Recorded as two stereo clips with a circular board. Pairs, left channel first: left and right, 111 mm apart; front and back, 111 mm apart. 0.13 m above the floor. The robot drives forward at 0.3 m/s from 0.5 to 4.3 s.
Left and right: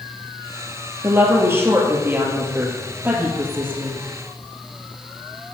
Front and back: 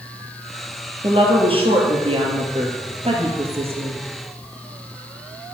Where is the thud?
No thud in this recording.